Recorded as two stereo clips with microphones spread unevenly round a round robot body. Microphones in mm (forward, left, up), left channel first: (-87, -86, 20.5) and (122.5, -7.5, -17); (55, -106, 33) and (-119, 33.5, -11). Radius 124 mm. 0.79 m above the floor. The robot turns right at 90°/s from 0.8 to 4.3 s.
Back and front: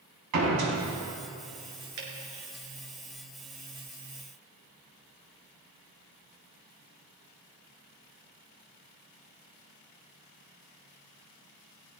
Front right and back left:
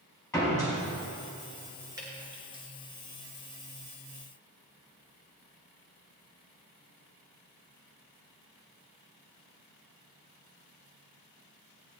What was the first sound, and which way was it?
A door slam, 40° left.